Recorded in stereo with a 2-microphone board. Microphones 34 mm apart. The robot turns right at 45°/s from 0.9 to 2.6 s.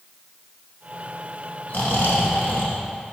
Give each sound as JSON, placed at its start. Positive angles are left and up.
{"t": 1.7, "sound": "snoring", "azimuth_deg": 55, "distance_m": 1.2}